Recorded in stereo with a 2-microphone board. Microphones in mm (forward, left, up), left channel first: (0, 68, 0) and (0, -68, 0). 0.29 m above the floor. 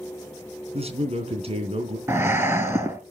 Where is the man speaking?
50° right (ahead or behind), 3.5 m.